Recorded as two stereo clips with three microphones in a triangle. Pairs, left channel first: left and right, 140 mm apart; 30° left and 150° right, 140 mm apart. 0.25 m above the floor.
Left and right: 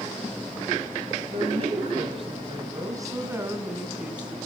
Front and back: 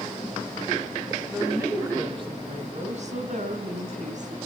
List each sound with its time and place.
1.3 s a woman speaking: 70° right, 1.8 m; by 4.4 s 175° right, 3 m